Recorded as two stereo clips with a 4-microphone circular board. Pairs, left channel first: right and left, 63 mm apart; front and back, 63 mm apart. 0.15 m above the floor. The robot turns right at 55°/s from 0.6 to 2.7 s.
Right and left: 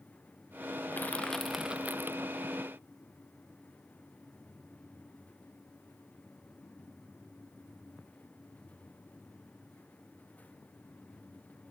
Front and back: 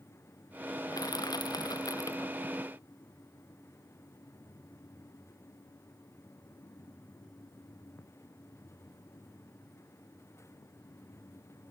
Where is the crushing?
30° right; by 2.3 s 50° left.